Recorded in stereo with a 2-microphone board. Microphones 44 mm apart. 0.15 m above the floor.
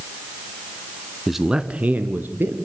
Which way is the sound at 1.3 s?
Centre (ahead or behind).